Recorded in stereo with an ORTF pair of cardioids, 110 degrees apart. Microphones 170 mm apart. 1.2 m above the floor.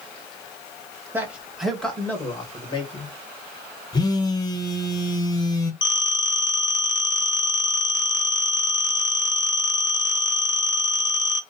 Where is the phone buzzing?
25° left, 0.8 m.